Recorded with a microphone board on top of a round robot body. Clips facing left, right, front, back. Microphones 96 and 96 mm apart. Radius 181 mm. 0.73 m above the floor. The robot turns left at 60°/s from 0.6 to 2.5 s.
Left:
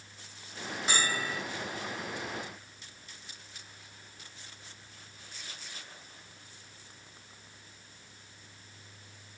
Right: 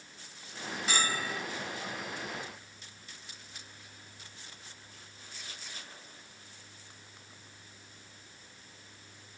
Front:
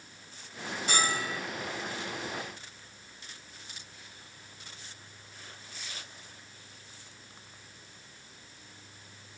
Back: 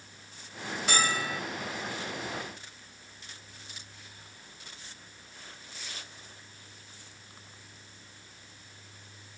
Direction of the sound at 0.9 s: 155° left.